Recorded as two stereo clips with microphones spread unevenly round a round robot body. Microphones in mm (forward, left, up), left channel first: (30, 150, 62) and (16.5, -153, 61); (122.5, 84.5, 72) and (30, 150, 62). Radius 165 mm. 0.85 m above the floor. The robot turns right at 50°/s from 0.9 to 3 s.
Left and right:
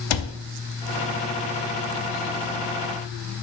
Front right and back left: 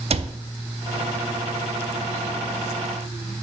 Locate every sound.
0.1 s a cupboard door: 110° left, 0.6 m